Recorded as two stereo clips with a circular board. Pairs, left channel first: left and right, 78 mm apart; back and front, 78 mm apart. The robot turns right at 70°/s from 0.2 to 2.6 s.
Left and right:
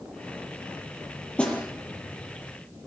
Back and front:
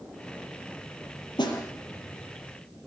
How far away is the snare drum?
About 5.5 m.